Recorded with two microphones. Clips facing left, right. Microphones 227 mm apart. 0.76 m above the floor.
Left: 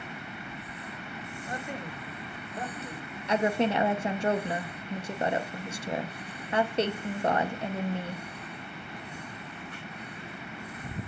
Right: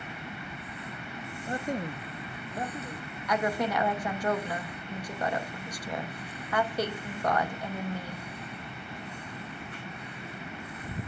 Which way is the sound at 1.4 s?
25° right (ahead or behind).